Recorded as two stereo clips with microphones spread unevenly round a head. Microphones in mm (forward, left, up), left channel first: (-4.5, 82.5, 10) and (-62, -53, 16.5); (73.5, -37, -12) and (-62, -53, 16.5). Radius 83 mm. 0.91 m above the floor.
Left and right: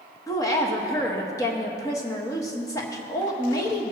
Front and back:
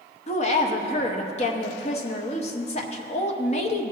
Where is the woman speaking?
Straight ahead, 1.0 m.